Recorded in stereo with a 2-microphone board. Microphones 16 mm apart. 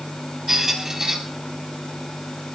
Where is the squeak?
30° right (ahead or behind), 4 m.